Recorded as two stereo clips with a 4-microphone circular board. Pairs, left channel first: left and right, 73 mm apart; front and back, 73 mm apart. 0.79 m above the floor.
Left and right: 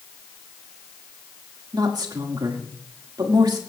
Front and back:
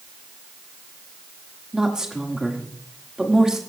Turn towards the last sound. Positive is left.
turn(degrees=-100)